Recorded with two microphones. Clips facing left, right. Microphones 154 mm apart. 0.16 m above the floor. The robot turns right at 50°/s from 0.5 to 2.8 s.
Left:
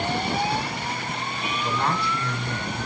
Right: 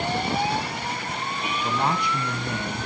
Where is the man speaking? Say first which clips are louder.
Right 1 dB; 15° right (ahead or behind), 1.3 m; by 2.9 s 20° right (ahead or behind), 1.3 m.